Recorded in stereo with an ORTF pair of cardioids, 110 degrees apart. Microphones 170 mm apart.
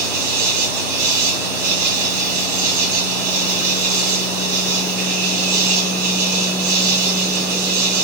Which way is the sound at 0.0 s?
70° right.